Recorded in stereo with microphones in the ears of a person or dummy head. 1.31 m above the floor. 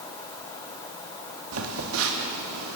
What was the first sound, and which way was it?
A phone buzzing, 80° right.